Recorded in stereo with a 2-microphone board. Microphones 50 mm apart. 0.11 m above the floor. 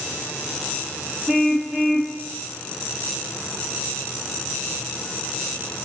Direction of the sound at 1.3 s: 10° right (ahead or behind).